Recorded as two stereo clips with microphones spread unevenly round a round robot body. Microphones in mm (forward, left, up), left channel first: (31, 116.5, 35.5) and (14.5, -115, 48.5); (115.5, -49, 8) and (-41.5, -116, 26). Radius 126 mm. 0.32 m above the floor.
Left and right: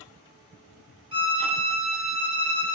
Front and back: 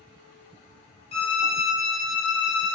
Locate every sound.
1.1 s a violin: 30° right, 1.0 m